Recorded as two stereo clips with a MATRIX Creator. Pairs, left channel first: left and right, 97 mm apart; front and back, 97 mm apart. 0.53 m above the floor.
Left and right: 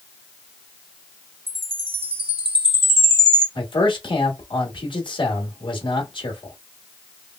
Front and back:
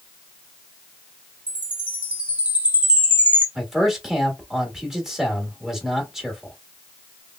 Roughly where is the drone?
No drone in this recording.